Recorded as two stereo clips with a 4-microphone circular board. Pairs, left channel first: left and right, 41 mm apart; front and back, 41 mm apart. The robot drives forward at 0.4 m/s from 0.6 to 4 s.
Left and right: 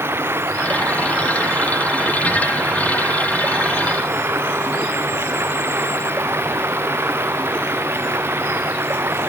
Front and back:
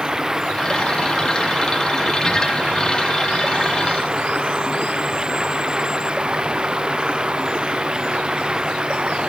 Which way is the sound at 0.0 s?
100° right.